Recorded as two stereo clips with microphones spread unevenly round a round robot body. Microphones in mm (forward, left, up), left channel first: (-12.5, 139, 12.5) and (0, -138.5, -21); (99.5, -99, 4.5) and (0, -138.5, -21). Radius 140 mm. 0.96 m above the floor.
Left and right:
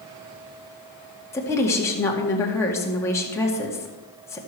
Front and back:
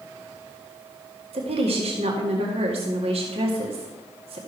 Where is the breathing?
No breathing in this recording.